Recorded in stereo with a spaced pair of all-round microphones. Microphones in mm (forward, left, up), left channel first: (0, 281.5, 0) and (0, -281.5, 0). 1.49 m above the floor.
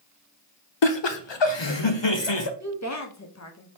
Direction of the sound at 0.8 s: 50° left (ahead or behind).